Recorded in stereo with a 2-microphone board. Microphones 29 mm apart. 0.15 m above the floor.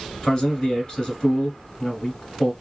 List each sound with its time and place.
0.2 s a man speaking: 30° left (ahead or behind), 1.4 m